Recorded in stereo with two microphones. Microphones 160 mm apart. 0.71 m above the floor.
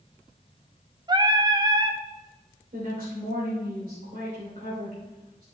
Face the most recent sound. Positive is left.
turn(degrees=-70)  # may be behind; listen again after turning